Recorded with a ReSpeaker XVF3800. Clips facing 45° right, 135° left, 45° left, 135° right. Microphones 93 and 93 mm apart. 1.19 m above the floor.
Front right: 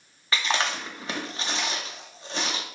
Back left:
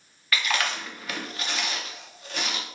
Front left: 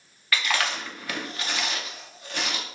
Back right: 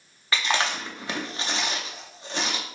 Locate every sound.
0.3 s chewing: 90° right, 0.6 m